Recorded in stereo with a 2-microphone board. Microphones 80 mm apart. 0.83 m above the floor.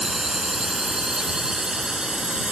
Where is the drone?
5° right (ahead or behind); by 2.5 s 10° right (ahead or behind).